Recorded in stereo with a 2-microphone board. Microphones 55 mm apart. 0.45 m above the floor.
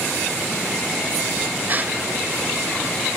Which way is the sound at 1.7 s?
35° right (ahead or behind).